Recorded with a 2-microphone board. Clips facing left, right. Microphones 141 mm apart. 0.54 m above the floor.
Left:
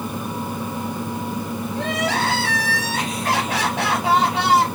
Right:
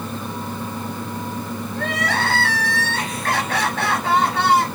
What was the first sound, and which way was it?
Crying, 15° left (ahead or behind).